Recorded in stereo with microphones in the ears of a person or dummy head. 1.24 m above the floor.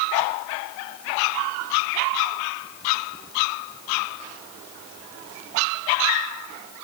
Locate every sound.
Only background noise.